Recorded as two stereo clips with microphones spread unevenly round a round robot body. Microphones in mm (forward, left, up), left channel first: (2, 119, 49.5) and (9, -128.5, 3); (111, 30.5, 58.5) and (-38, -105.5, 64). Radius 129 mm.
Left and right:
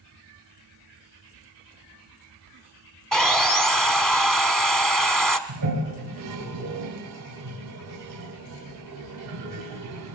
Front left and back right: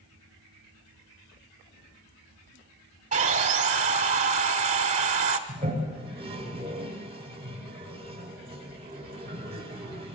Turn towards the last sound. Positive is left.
turn(degrees=-75)